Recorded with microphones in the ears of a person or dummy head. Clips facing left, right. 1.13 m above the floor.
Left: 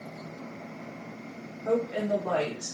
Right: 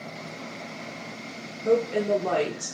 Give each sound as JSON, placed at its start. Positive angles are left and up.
{"t": 1.6, "sound": "a woman speaking", "side_deg": -30, "distance_m": 0.6}